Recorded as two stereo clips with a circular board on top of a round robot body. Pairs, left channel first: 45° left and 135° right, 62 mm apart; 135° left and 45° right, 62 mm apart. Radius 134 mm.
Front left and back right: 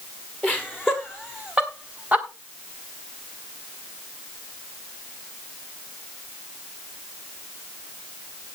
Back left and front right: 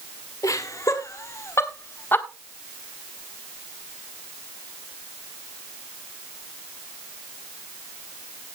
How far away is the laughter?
About 2 m.